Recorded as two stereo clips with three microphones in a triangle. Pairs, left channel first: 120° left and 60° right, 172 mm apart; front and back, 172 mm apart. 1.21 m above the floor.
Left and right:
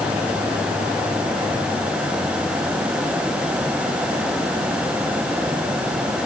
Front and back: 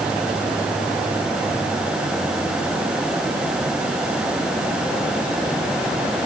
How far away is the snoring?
No snoring in this recording.